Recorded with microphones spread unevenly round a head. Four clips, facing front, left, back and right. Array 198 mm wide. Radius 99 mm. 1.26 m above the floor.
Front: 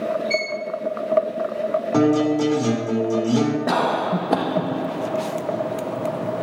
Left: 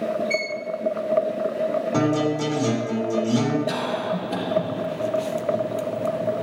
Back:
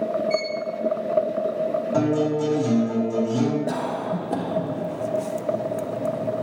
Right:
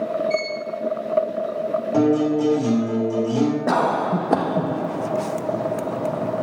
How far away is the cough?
About 0.8 m.